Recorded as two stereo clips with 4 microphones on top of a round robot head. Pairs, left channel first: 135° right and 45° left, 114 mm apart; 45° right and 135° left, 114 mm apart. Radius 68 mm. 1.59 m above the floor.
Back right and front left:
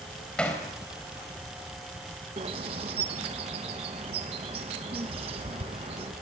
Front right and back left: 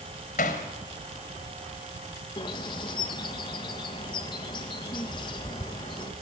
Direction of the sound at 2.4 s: 5° left.